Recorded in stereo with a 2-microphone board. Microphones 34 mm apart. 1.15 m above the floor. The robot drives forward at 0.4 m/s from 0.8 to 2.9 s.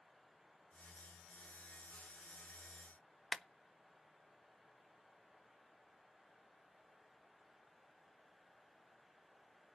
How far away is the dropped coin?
No dropped coin in this recording.